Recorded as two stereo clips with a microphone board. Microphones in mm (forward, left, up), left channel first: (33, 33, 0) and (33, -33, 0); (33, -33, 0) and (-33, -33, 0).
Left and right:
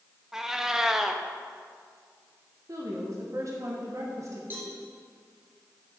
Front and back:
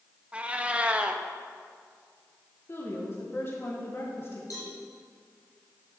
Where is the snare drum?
No snare drum in this recording.